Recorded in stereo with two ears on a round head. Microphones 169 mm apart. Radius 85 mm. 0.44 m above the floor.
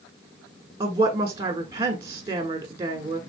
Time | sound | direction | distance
0.8 | a woman speaking | 15° right (ahead or behind) | 1.2 m